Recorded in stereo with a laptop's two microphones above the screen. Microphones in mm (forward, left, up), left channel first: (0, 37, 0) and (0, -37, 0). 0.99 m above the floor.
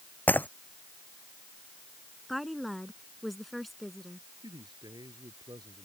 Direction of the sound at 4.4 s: 70° right (ahead or behind).